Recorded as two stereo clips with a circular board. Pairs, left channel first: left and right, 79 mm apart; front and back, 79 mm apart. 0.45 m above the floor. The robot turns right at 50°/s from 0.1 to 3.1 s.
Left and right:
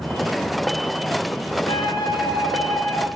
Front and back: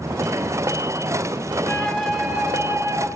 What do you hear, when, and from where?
1.6 s a flute: 70° left, 1.9 m; by 3.1 s 140° left, 1.9 m